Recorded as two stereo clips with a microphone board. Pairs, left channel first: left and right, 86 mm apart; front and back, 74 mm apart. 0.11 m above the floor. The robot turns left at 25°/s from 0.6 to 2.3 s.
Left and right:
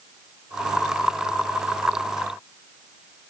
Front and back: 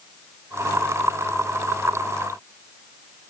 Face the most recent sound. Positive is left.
No sound to turn to.